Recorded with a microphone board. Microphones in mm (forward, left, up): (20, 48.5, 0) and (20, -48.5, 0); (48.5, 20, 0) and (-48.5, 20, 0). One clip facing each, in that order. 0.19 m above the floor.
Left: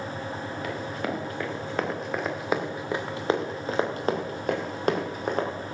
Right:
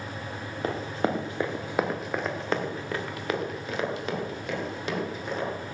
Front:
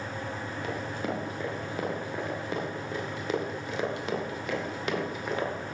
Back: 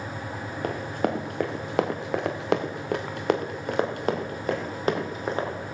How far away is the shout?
No shout in this recording.